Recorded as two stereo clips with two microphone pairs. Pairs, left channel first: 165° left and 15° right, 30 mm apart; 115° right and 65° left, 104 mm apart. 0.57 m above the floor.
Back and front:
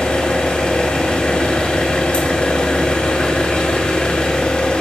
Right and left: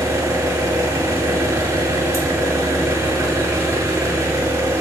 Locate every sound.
0.0 s an engine running: 120° left, 1.8 m